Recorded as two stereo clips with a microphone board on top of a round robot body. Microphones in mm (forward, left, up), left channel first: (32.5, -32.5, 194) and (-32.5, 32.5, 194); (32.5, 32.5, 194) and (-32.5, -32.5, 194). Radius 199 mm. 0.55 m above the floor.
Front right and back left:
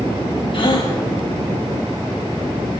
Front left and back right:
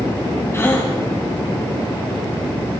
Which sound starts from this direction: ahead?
A gasp, at 0.5 s.